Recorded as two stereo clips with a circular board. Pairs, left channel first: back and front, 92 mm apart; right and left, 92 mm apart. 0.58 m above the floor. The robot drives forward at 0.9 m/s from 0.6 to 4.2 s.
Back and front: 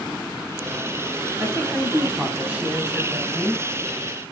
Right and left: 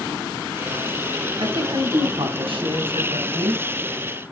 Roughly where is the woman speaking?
Ahead left.